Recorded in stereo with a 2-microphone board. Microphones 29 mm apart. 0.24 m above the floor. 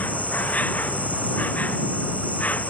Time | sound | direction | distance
0.0 | an insect | 65° left (ahead or behind) | ?